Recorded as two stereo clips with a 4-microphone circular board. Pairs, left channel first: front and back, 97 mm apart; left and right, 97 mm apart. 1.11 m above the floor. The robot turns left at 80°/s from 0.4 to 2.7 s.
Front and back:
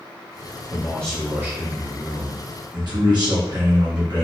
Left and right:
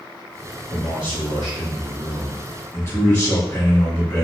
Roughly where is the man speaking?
Ahead right.